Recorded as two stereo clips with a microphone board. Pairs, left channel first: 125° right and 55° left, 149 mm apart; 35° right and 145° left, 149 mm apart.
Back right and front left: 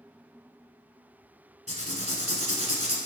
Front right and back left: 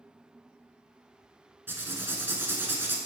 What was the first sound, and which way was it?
Writing, 140° right.